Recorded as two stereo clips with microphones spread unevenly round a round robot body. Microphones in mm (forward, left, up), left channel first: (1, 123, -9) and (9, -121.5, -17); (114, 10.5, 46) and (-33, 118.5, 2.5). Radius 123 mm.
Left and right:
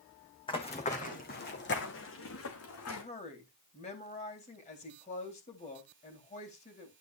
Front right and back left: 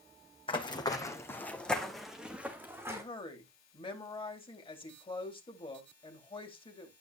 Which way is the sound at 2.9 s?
30° left.